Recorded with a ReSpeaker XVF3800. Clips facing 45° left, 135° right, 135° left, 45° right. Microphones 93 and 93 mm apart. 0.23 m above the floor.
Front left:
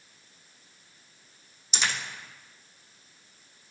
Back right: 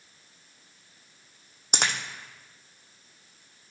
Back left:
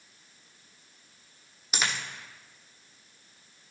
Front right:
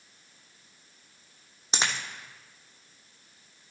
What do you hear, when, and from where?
1.7 s a dropped coin: 105° right, 1.7 m